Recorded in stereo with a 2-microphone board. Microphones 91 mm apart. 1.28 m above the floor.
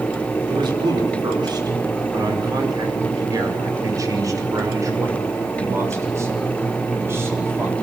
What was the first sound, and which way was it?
A man speaking, 60° right (ahead or behind).